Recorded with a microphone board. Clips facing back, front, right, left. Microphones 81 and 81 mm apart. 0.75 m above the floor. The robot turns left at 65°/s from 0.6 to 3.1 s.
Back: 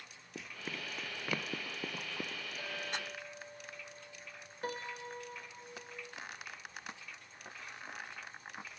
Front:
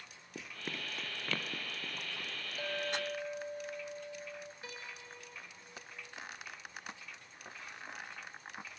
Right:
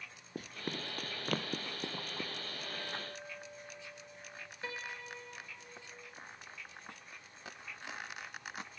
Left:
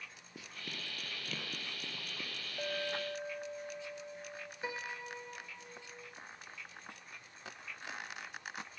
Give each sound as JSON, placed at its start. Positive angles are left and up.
{"t": 0.3, "sound": "running footsteps", "azimuth_deg": -90, "distance_m": 0.9}
{"t": 2.6, "sound": "a clink", "azimuth_deg": 70, "distance_m": 2.0}
{"t": 4.6, "sound": "a piano", "azimuth_deg": 160, "distance_m": 0.7}